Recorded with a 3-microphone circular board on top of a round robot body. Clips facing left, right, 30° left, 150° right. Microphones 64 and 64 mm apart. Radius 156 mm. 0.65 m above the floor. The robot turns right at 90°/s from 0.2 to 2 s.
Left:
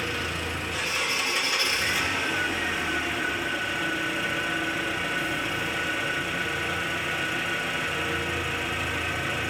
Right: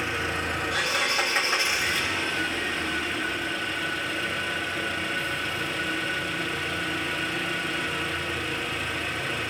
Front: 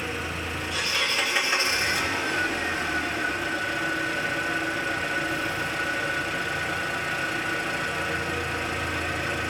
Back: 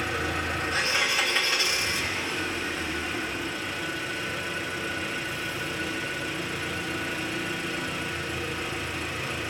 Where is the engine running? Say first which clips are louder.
Right 2 dB, back 2 dB; 150° right, 4 m; by 9.5 s 15° left, 4 m.